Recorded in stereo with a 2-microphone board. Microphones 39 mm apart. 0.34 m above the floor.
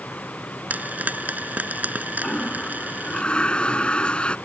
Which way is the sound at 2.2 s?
25° left (ahead or behind).